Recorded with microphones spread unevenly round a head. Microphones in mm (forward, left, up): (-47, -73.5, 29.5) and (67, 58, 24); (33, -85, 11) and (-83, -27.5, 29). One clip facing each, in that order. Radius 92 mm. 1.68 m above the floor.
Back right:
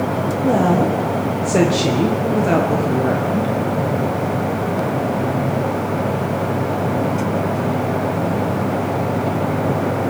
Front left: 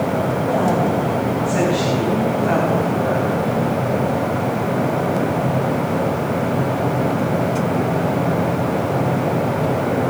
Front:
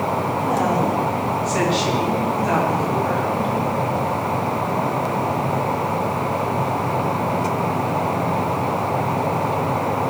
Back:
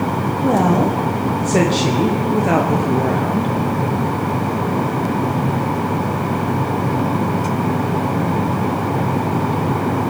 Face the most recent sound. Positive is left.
turn(degrees=-170)